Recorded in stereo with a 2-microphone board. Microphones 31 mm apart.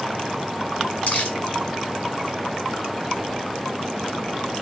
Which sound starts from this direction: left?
Crumpling, at 1.1 s.